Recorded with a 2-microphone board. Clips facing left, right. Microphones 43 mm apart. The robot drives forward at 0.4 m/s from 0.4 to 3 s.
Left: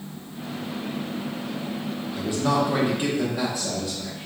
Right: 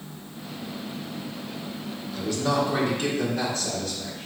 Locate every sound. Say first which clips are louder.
2.1 s a man speaking: left 1 dB; 20° left (ahead or behind), 0.8 m; by 4.3 s 15° left (ahead or behind), 1.1 m